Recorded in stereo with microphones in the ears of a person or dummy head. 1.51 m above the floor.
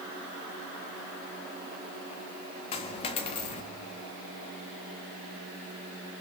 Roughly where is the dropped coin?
Left.